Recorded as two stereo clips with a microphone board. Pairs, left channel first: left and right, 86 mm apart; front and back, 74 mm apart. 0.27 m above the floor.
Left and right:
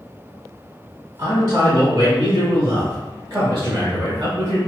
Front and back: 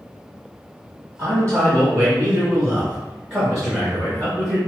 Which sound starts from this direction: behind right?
A man speaking, at 1.2 s.